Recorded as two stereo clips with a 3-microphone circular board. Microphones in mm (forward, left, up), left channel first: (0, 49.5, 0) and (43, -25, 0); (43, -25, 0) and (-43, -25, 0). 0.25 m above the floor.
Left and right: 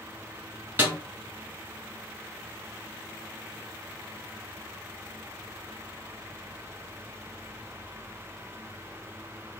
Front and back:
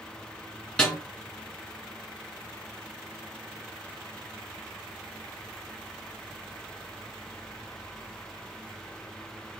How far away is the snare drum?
About 1.6 m.